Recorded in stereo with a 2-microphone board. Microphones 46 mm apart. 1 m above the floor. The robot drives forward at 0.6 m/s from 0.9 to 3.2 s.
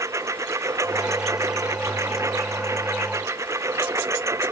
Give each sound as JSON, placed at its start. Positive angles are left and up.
{"t": 0.0, "sound": "a lawn mower", "side_deg": -85}